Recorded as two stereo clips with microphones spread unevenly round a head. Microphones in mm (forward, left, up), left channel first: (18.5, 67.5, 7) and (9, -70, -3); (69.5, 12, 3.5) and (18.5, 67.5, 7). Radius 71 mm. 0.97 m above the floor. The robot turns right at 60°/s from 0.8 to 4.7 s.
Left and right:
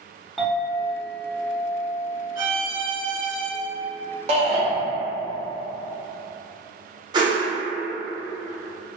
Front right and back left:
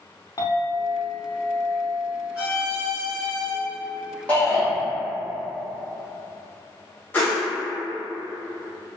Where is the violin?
150° right, 1.2 m; by 3.5 s 80° right, 1.2 m.